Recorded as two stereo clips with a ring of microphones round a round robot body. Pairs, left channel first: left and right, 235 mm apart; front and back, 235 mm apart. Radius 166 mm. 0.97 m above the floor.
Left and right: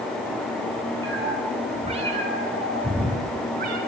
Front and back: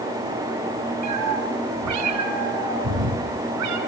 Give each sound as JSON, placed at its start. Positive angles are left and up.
{"t": 1.0, "sound": "a cat meowing", "azimuth_deg": -170, "distance_m": 5.0}